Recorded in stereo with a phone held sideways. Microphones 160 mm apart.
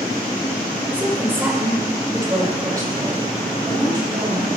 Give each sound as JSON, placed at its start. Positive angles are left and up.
{"t": 0.9, "sound": "a woman speaking", "side_deg": -10, "distance_m": 4.5}